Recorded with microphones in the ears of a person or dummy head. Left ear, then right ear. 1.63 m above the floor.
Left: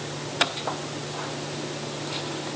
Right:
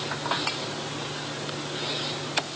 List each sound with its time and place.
Only background noise.